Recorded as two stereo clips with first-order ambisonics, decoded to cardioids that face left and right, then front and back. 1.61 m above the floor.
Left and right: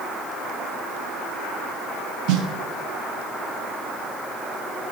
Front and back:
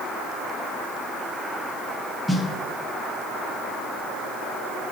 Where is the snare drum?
90° right, 0.5 m.